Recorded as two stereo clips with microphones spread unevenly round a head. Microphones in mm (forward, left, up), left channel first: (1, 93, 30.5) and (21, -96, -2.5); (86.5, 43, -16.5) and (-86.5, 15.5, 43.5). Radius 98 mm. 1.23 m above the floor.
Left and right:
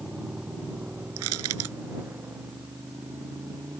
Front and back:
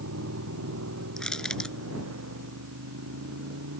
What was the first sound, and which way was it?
A motorcycle, 170° right.